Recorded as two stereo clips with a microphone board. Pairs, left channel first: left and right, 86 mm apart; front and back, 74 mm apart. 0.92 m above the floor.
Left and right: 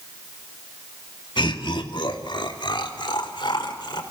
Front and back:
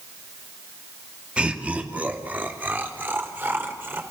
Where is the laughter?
105° left, 2 m; by 4.0 s 120° left, 4 m.